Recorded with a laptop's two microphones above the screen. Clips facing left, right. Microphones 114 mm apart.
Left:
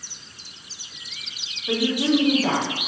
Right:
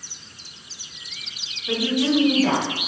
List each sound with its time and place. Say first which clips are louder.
1.7 s a woman speaking: even; 10° left (ahead or behind), 1.0 m